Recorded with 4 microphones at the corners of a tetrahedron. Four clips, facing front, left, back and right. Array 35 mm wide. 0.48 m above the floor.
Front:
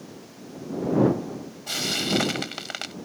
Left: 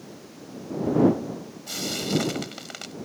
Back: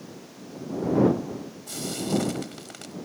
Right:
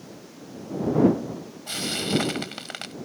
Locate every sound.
1.7 s frying: 25° right